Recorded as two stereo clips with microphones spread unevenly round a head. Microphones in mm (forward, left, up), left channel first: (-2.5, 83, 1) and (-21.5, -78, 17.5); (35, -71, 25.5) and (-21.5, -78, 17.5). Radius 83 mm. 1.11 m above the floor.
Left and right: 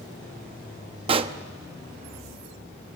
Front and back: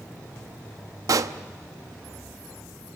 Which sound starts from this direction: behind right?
A pop, at 1.1 s.